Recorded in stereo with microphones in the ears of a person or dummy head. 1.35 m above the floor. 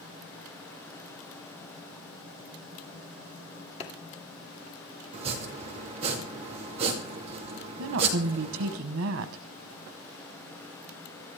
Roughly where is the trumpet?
No trumpet in this recording.